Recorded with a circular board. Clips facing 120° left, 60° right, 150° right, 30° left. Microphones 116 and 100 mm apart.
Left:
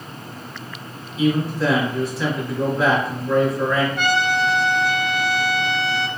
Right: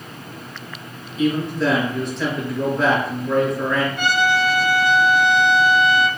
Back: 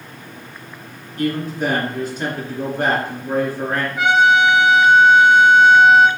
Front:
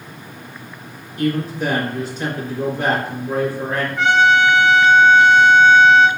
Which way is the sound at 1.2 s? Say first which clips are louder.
Even, front 1 dB; 160° right.